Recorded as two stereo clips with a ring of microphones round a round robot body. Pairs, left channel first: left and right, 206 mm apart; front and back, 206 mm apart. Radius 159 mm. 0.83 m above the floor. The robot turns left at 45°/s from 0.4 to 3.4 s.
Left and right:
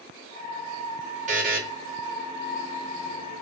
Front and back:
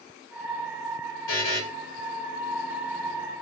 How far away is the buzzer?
About 0.8 m.